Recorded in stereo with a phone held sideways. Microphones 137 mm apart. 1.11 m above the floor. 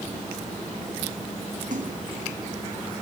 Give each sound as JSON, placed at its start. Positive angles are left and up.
{"t": 1.7, "sound": "a splash", "side_deg": -70, "distance_m": 2.5}